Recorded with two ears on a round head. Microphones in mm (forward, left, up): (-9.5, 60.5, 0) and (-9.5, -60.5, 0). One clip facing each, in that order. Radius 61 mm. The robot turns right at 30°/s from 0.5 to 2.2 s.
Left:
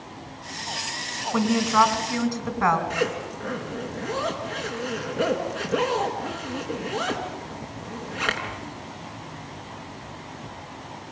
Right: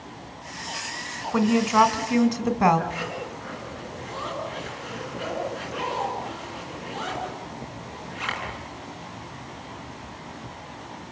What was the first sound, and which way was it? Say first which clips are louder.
A woman speaking: right 1 dB; 5° right (ahead or behind).